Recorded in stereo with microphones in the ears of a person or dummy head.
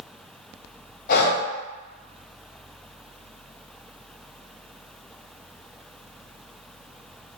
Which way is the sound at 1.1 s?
50° left (ahead or behind).